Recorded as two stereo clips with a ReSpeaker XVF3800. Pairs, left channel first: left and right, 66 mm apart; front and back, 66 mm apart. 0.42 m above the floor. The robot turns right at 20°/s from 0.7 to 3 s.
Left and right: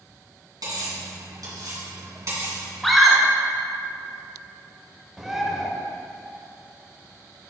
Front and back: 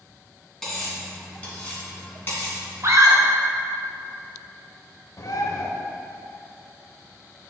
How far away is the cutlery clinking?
About 2.5 m.